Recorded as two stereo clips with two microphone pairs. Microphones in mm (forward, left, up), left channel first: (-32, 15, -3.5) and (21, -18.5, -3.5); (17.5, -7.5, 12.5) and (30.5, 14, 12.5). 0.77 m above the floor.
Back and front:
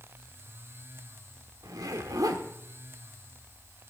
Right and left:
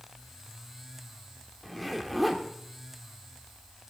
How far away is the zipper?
About 1.4 m.